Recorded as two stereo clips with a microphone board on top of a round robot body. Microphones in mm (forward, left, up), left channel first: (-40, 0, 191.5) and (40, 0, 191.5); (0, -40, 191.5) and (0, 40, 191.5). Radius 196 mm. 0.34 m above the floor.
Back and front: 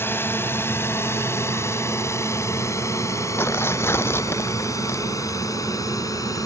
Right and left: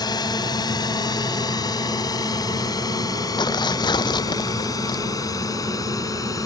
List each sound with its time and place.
0.0 s a drone: 120° right; by 6.5 s 135° right
3.4 s tearing paper: 120° right